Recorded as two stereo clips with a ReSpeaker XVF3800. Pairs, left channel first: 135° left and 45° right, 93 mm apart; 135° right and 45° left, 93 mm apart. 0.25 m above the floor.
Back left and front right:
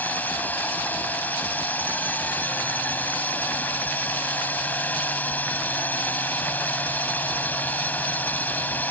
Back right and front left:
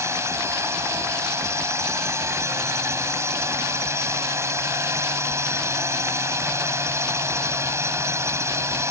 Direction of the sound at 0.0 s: 80° left.